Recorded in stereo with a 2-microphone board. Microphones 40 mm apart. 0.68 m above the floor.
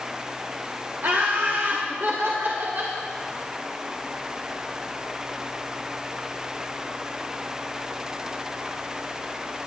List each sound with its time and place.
1.0 s laughter: 70° right (ahead or behind), 1.7 m; by 3.0 s 65° right (ahead or behind), 2.5 m